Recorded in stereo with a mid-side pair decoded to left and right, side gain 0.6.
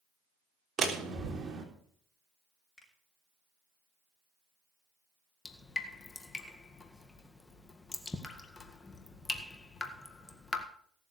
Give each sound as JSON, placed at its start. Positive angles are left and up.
{"t": 0.8, "sound": "a door slam", "azimuth_deg": -35, "distance_m": 3.5}
{"t": 2.8, "sound": "a finger snap", "azimuth_deg": 10, "distance_m": 6.5}
{"t": 5.5, "sound": "dripping", "azimuth_deg": 20, "distance_m": 1.8}